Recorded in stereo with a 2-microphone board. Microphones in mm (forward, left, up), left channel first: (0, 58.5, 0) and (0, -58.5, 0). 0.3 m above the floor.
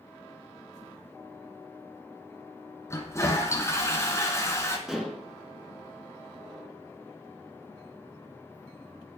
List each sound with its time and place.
2.9 s a toilet flushing: 25° left (ahead or behind), 2 m
4.9 s dishes clattering: 5° right (ahead or behind), 2.5 m